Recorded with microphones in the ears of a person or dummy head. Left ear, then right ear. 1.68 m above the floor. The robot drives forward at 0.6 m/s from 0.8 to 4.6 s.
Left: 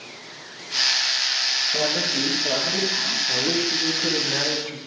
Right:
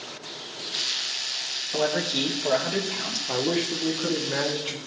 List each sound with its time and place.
1.7 s a man speaking: 50° right (ahead or behind), 3 m; by 3.2 s 60° right (ahead or behind), 2.5 m
3.3 s a man speaking: 30° right (ahead or behind), 0.9 m; by 4.8 s 15° right (ahead or behind), 1.5 m